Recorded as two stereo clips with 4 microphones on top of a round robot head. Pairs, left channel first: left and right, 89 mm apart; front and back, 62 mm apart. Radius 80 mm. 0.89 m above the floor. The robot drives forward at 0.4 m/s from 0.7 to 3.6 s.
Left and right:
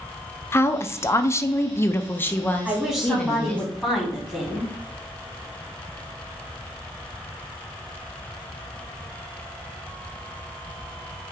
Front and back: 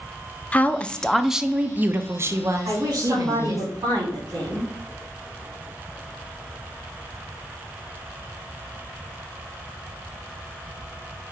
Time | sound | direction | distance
0.5 | a woman speaking | 50° left | 0.5 m
2.6 | a woman speaking | 170° right | 2 m